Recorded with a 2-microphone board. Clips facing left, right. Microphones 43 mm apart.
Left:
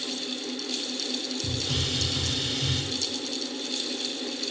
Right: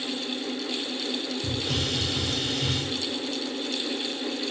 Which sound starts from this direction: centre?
A hiss, at 1.4 s.